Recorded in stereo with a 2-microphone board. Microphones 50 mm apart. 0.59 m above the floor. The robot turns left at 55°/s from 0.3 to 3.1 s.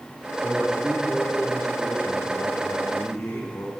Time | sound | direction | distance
0.4 | a man speaking | 160° right | 1.6 m